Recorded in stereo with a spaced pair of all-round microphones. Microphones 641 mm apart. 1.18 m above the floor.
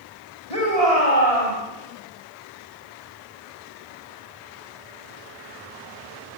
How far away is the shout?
About 6 m.